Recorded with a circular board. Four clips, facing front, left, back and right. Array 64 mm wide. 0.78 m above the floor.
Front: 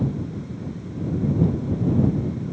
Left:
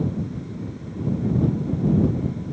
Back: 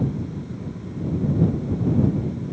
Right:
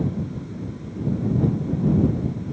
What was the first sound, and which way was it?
Only background noise.